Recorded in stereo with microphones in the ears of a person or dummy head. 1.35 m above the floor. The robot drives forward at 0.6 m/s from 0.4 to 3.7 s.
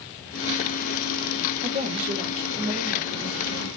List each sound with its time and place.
1.6 s a woman speaking: 40° right (ahead or behind), 1.0 m; by 3.7 s 20° right (ahead or behind), 2 m